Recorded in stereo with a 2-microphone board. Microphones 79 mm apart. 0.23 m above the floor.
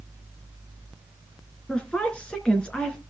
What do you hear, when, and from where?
1.7 s a woman speaking: 15° left (ahead or behind), 3.5 m